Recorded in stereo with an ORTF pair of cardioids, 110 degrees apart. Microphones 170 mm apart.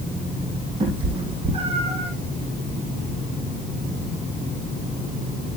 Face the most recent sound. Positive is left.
turn(degrees=-35)